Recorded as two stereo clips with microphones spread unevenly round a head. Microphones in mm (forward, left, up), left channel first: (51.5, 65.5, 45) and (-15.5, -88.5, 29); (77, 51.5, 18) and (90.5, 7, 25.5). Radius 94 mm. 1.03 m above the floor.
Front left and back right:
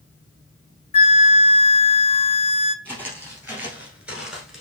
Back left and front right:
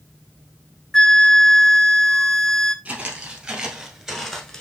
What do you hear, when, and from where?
0.9 s a flute: 65° left, 0.5 m
2.9 s footsteps: 30° right, 1.7 m; by 4.6 s 10° left, 0.9 m